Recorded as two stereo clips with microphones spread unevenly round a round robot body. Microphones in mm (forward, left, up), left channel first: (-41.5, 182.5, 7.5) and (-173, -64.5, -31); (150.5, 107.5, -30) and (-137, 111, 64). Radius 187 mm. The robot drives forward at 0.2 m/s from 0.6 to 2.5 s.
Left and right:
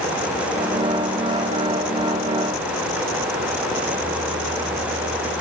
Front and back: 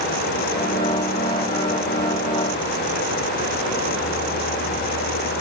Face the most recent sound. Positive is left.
No sound to turn to.